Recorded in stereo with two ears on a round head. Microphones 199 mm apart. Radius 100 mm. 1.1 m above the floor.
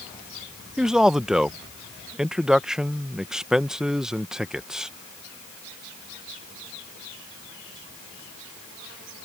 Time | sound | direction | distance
0.8 | a man speaking | 5° right (ahead or behind) | ?